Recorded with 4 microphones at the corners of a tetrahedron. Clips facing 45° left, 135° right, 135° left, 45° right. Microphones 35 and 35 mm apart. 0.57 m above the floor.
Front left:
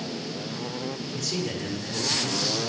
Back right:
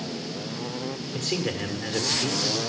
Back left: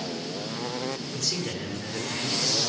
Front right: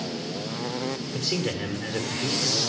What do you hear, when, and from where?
1.1 s a man speaking: 100° right, 1.6 m